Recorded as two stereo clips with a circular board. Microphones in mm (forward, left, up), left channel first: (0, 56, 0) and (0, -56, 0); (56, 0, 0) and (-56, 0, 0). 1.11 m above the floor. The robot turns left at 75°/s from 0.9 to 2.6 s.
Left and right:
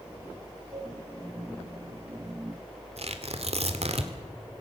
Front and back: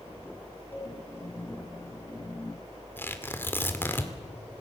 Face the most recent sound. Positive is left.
turn(degrees=-70)